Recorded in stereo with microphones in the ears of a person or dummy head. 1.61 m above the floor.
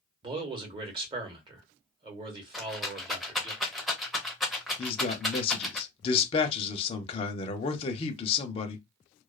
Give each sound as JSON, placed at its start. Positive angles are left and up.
{"t": 0.2, "sound": "a man speaking", "side_deg": -30, "distance_m": 1.1}
{"t": 2.5, "sound": "a rattle", "side_deg": 0, "distance_m": 0.9}
{"t": 4.8, "sound": "a man speaking", "side_deg": 35, "distance_m": 0.7}